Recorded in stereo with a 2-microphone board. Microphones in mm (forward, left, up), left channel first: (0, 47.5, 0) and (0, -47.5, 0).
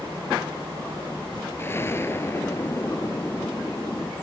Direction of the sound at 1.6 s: 25° left (ahead or behind).